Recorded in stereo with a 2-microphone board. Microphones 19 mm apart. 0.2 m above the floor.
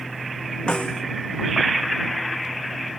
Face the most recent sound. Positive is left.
turn(degrees=70)  # may be behind; listen again after turning